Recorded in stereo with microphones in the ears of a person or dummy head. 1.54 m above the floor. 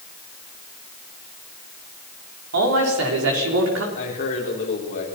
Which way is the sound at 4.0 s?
45° left (ahead or behind).